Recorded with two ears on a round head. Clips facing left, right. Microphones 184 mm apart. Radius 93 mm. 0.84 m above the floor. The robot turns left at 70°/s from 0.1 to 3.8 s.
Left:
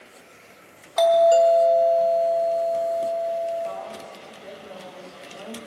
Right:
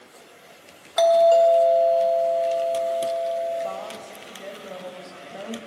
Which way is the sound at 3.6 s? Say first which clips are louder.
Even; 55° right (ahead or behind).